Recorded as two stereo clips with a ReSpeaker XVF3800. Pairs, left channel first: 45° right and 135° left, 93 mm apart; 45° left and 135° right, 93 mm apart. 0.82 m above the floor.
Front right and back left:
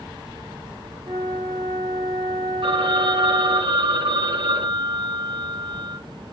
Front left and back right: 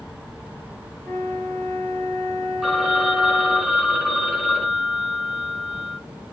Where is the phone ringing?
135° left, 1.2 m.